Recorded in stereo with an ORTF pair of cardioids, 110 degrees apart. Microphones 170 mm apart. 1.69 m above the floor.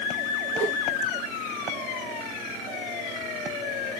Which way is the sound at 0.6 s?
20° right.